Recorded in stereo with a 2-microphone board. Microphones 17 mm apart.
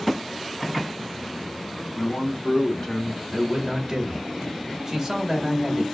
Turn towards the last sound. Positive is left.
turn(degrees=-20)  # may be behind; listen again after turning